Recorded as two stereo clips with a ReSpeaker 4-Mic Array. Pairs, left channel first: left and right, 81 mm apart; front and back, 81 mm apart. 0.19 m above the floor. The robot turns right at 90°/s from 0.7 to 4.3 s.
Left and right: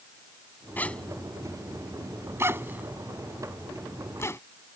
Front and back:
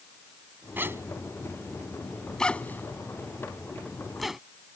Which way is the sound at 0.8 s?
140° left.